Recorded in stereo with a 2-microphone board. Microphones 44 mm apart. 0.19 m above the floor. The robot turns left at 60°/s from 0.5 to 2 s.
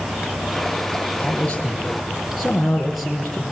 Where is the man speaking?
45° left, 4 m; by 3.4 s 5° right, 4 m.